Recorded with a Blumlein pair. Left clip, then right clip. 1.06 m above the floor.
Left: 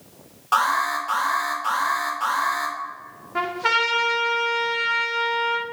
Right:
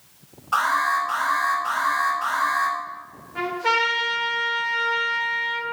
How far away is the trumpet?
About 1.9 m.